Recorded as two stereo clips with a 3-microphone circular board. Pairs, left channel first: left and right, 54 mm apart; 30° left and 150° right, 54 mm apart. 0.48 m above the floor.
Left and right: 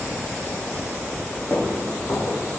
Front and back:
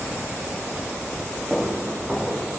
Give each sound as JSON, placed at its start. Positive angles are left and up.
{"t": 1.5, "sound": "footsteps", "azimuth_deg": 130, "distance_m": 5.0}